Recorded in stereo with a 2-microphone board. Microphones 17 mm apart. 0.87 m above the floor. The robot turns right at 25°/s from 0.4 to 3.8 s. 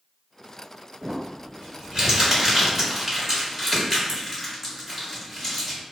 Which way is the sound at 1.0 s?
60° right (ahead or behind).